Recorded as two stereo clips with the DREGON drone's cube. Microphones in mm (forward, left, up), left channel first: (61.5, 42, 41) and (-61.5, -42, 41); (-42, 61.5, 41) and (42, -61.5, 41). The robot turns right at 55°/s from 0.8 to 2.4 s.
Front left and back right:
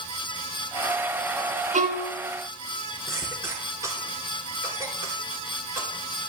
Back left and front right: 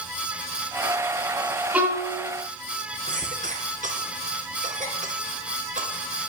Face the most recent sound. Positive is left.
turn(degrees=-75)